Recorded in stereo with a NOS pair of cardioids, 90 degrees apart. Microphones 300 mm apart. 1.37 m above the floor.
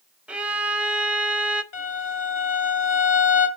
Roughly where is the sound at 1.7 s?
Ahead left.